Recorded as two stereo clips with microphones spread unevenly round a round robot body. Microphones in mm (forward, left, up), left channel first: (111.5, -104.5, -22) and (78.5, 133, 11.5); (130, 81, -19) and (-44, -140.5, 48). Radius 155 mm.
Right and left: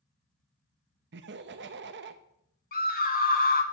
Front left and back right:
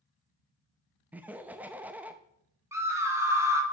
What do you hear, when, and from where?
1.1 s laughter: 135° left, 0.6 m
2.7 s a scream: 40° right, 1.8 m